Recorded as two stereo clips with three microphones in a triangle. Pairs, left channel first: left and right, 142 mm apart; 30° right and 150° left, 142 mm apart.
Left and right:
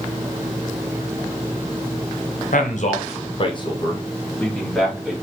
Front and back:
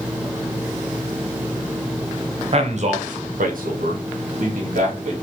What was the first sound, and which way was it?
A man speaking, 110° left.